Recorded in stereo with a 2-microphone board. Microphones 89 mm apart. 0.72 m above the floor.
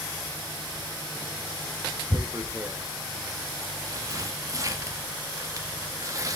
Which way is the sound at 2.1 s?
35° right (ahead or behind).